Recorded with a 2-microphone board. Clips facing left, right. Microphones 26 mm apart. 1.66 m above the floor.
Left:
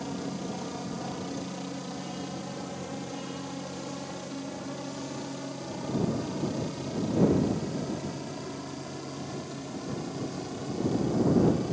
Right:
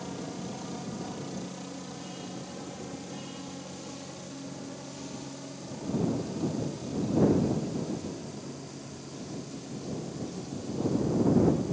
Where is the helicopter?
10° left (ahead or behind); by 11.7 s 35° left (ahead or behind).